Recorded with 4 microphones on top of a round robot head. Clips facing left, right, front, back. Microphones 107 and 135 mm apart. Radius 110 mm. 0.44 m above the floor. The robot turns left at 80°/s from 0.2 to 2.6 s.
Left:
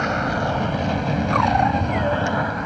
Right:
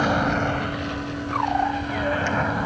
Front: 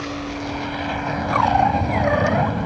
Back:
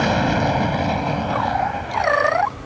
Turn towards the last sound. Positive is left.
turn(degrees=-5)